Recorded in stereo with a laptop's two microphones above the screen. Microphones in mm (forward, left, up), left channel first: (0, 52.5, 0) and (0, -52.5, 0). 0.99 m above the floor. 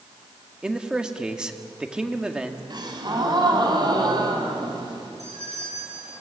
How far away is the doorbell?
About 7.5 m.